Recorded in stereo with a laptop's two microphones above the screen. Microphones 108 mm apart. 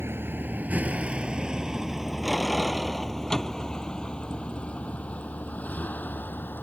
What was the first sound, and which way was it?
A vehicle, 20° right (ahead or behind).